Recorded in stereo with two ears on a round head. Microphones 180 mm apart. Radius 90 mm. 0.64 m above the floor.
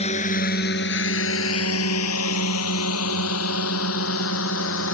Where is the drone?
30° left (ahead or behind); by 4.9 s 75° left (ahead or behind).